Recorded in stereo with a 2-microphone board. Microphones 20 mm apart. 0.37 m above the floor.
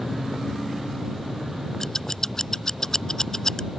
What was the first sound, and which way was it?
Scissors, 25° left (ahead or behind).